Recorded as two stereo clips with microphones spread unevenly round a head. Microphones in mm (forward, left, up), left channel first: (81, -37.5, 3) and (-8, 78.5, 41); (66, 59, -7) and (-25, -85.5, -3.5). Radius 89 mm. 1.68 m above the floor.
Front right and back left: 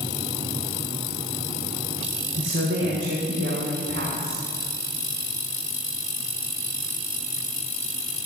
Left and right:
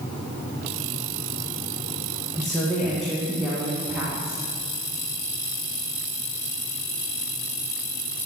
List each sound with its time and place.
2.3 s a woman speaking: 145° left, 1.9 m; by 4.4 s 155° left, 3 m